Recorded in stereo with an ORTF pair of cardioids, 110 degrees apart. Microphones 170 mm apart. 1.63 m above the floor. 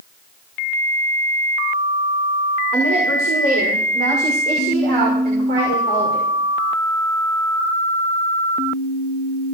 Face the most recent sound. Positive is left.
turn(degrees=-80)